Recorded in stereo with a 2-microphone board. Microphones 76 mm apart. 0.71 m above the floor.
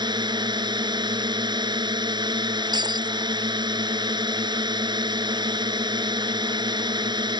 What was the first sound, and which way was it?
A drone, 75° right (ahead or behind).